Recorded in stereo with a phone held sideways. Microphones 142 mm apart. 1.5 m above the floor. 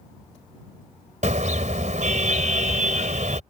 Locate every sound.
1.2 s a car horn: 60° right (ahead or behind)